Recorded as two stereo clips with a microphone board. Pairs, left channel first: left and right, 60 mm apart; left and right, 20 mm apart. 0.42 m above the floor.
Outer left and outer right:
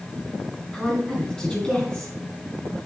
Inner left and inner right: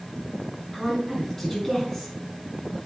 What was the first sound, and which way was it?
A woman speaking, 10° left (ahead or behind).